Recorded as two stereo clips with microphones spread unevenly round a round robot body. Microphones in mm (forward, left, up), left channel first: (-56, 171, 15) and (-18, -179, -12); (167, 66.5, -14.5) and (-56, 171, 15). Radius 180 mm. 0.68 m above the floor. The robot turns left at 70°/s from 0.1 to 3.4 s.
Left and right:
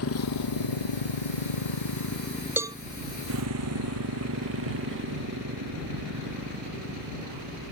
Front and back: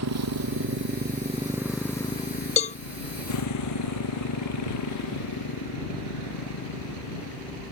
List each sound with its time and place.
0.0 s a motorcycle: 145° left; by 7.7 s 15° right
2.6 s a cowbell: 10° right; by 2.8 s 25° right